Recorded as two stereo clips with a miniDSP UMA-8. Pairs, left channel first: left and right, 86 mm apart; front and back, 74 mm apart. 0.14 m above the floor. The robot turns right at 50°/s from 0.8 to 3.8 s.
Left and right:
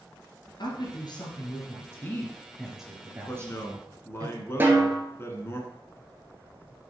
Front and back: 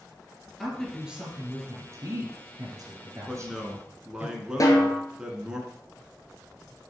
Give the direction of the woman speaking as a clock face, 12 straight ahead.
9 o'clock.